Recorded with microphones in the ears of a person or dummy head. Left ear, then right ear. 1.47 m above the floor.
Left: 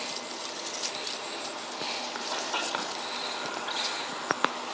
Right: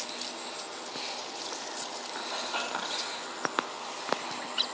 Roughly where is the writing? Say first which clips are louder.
Right 1 dB; centre.